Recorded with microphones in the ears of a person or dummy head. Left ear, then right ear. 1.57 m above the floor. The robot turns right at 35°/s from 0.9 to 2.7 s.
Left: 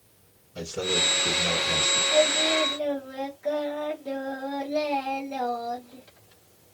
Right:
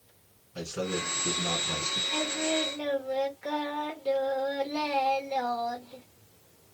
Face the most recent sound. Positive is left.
turn(degrees=-50)  # may be behind; listen again after turning